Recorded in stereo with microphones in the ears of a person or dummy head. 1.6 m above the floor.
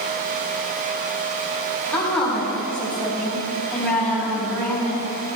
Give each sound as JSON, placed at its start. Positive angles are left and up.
{"t": 1.9, "sound": "a woman speaking", "side_deg": 10, "distance_m": 3.5}